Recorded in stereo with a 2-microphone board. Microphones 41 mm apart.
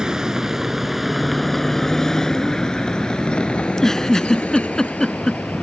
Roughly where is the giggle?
Centre.